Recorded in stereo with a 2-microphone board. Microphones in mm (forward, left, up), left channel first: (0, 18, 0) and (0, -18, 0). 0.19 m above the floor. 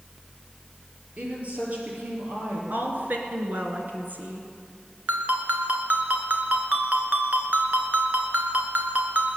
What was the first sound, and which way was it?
A woman speaking, 40° right (ahead or behind).